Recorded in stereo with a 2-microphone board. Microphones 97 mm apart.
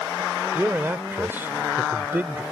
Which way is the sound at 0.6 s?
20° right (ahead or behind).